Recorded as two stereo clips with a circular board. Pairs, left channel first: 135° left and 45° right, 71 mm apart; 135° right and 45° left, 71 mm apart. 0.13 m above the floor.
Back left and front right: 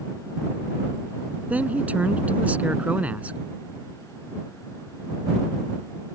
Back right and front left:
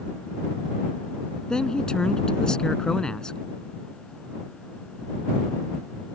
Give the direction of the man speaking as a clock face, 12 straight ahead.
2 o'clock.